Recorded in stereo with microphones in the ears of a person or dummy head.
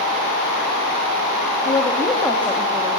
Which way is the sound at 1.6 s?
20° left (ahead or behind).